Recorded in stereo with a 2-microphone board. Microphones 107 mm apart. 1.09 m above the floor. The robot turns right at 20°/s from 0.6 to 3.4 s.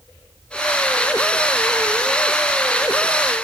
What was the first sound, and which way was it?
Only background noise.